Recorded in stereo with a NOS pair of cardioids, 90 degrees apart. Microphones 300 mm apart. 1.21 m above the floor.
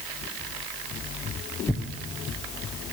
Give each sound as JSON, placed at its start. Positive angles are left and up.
{"t": 1.7, "sound": "tearing paper", "azimuth_deg": 5, "distance_m": 0.5}